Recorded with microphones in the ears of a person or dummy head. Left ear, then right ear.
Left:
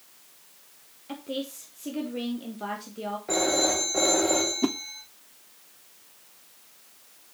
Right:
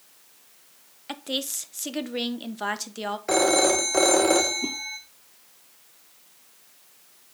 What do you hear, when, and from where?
1.1 s a woman speaking: 50° right (ahead or behind), 0.8 m
3.3 s a phone ringing: 40° right (ahead or behind), 0.7 m
4.6 s a whoosh: 60° left (ahead or behind), 0.6 m